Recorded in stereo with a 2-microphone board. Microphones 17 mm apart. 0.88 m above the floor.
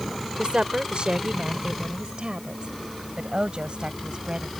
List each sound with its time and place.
0.4 s a woman speaking: 70° right (ahead or behind); by 4.5 s 65° right (ahead or behind)